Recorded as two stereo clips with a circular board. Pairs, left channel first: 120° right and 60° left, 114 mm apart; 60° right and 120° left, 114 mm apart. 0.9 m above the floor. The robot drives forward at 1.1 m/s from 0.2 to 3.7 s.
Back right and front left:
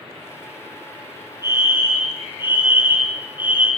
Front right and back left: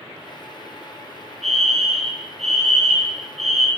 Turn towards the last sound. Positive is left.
turn(degrees=135)